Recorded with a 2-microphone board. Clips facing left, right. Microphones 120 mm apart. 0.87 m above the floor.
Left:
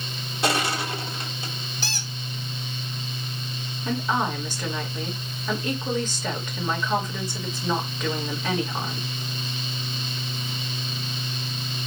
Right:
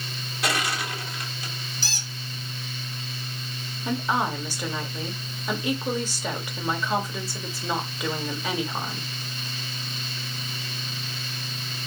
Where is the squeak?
60° left (ahead or behind), 1.1 m.